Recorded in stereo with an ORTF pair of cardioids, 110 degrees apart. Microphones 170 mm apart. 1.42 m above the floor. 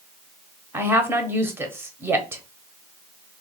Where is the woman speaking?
15° right, 1.1 m.